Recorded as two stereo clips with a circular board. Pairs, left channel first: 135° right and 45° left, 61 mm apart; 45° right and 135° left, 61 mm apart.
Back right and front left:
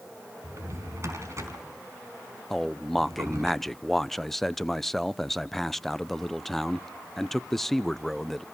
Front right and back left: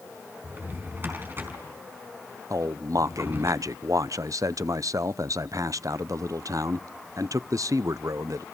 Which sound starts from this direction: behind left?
A man speaking, at 2.5 s.